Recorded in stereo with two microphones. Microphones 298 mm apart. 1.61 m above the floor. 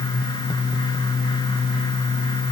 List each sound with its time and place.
Only background noise.